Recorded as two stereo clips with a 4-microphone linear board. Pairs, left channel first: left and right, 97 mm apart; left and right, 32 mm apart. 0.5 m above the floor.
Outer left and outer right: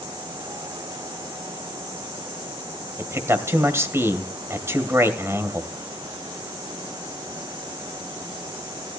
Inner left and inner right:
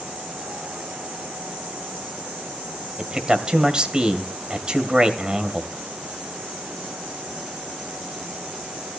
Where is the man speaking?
30° right (ahead or behind), 2 m.